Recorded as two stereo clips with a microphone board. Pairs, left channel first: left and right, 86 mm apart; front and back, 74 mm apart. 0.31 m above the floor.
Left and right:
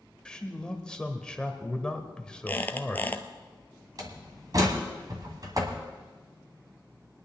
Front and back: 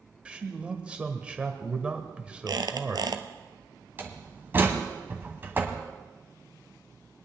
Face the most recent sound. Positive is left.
turn(degrees=-120)